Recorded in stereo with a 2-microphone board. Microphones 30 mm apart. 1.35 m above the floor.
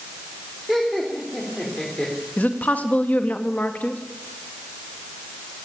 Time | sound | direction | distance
0.7 | laughter | 5° left (ahead or behind) | 3.5 m
2.4 | a woman speaking | 60° left (ahead or behind) | 2.5 m